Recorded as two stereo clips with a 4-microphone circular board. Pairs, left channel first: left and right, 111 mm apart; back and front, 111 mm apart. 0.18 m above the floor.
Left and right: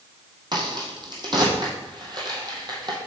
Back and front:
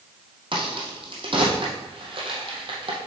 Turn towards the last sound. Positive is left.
turn(degrees=-40)